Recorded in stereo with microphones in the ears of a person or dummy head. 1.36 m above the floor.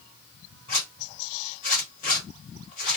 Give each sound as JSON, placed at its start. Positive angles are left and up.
{"t": 0.7, "sound": "a zipper", "side_deg": 40, "distance_m": 1.4}